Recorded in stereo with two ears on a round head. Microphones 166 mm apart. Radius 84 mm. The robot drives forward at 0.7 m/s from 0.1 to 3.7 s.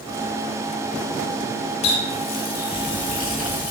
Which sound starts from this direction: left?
A running tap, at 1.8 s.